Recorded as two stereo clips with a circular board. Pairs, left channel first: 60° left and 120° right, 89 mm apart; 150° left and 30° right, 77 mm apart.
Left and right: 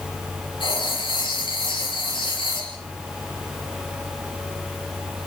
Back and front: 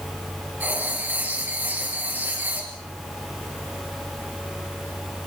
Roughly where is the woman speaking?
I don't hear a woman speaking.